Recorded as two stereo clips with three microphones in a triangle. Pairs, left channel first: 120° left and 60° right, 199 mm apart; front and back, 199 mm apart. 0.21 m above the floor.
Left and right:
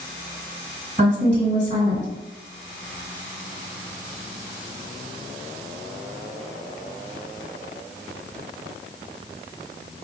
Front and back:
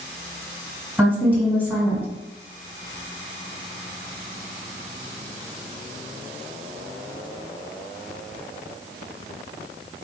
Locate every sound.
1.0 s a woman speaking: 100° right, 1.6 m